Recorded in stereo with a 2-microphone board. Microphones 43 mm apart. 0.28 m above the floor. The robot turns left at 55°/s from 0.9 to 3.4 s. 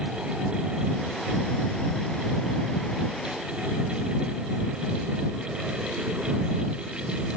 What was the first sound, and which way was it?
Only background noise.